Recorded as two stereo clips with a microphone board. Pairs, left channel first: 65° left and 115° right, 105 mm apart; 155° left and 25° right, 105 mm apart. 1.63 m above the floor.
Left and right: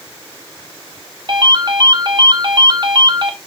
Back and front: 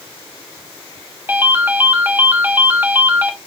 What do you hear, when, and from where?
1.3 s a ringtone: 90° right, 1.6 m